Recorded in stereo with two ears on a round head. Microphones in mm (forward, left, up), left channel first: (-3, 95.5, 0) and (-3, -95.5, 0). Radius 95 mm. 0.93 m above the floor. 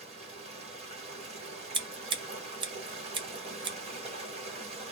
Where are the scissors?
20° right (ahead or behind), 0.6 m.